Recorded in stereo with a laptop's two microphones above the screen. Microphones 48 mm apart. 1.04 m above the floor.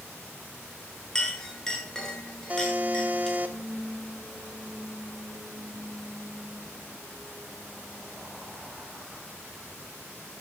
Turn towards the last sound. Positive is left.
turn(degrees=-30)  # may be behind; listen again after turning